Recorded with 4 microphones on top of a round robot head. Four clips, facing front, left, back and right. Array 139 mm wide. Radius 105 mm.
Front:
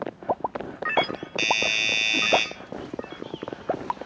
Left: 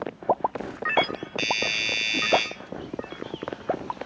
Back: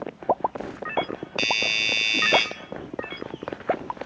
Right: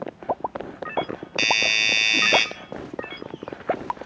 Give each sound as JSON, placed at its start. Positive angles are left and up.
{"t": 1.4, "sound": "a doorbell", "azimuth_deg": -90, "distance_m": 2.5}